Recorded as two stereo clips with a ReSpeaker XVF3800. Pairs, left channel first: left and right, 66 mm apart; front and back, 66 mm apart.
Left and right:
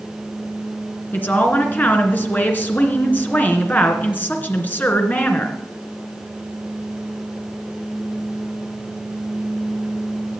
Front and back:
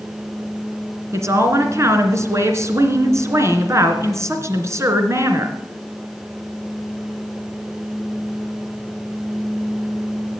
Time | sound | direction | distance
1.1 | a woman speaking | 150° left | 2.5 m